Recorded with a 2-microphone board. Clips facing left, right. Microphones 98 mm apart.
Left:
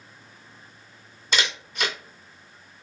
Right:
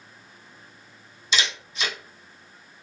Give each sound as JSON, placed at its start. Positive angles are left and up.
{"t": 1.3, "sound": "a camera shutter", "side_deg": 55, "distance_m": 1.3}